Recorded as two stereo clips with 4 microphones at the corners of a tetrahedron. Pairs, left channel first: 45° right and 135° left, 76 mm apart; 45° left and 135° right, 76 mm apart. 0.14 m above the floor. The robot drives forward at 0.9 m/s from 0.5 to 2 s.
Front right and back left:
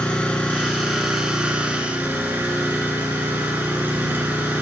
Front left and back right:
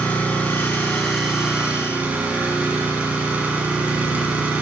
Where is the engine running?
10° left, 1.4 m; by 4.6 s 175° left, 1.5 m.